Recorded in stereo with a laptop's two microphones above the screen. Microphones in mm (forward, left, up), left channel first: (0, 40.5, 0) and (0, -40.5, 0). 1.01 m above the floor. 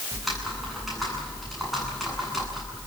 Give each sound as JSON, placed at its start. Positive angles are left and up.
{"t": 0.1, "sound": "typing on a keyboard", "side_deg": 0, "distance_m": 9.5}